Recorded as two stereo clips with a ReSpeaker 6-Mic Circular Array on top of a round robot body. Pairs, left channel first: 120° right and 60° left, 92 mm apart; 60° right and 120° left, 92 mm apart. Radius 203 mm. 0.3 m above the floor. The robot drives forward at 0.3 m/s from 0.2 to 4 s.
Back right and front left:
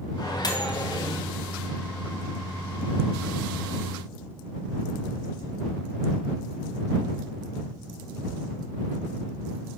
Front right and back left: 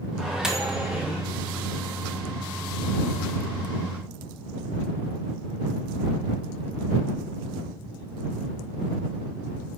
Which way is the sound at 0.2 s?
155° right.